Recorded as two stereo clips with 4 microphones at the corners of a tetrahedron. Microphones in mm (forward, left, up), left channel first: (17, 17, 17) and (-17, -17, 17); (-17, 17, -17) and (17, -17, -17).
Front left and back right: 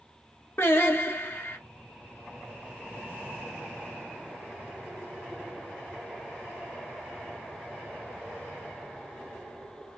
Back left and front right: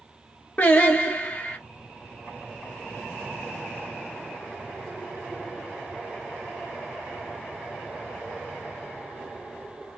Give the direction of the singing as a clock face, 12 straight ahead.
9 o'clock.